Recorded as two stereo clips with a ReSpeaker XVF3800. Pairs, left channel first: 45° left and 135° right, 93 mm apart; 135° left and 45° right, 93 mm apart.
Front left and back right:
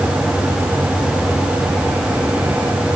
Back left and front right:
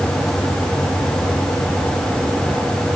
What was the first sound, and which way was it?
Only background noise.